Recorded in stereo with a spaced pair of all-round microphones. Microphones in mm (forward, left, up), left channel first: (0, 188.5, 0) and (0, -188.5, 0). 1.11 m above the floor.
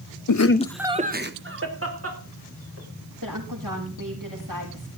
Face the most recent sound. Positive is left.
turn(degrees=-60)  # may be behind; listen again after turning